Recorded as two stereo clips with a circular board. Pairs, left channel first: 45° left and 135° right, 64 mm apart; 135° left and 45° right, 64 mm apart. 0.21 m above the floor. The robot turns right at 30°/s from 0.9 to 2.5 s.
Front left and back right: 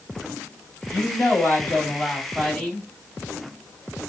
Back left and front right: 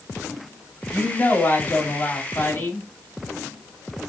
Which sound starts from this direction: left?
A woman speaking, at 0.9 s.